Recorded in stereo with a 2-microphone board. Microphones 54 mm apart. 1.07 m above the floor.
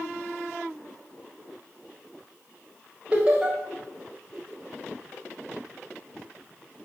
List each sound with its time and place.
3.1 s laughter: 20° right (ahead or behind), 0.7 m